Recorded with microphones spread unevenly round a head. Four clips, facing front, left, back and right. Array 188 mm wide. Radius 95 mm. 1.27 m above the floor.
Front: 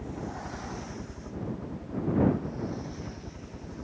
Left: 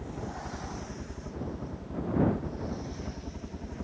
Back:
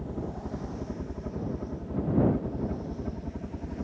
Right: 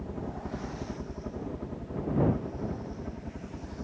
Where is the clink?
No clink in this recording.